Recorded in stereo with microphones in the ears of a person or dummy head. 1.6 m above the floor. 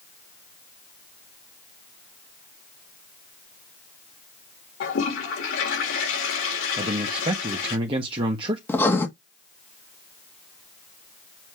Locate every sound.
4.8 s a toilet flushing: 80° left, 3.5 m
6.8 s a man speaking: 30° right (ahead or behind), 1.5 m
8.7 s writing: 15° left (ahead or behind), 1.7 m